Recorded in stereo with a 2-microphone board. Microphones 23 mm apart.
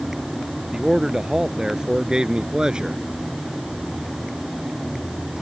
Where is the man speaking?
25° right (ahead or behind); by 3.0 s 40° right (ahead or behind).